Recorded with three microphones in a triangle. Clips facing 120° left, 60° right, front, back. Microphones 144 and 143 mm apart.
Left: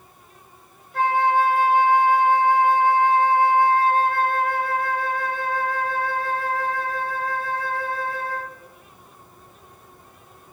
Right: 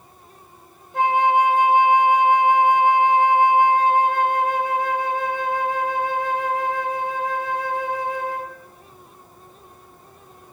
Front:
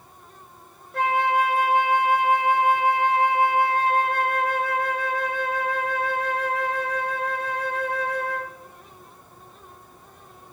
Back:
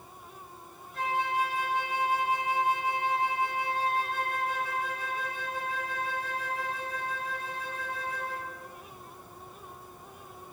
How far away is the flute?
About 1.9 m.